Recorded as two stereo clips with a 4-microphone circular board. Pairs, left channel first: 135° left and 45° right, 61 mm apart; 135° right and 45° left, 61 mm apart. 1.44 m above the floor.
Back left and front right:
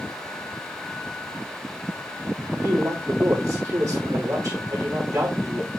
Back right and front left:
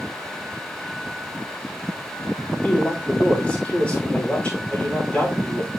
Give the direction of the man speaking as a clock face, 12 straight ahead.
2 o'clock.